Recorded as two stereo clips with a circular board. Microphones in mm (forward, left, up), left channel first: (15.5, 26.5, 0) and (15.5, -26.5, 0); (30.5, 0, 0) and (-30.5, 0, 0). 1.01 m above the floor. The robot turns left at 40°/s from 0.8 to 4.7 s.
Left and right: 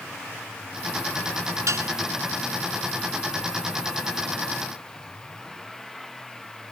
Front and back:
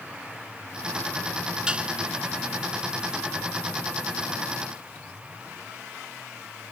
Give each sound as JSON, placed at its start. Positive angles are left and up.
{"t": 1.7, "sound": "dishes clattering", "azimuth_deg": -105}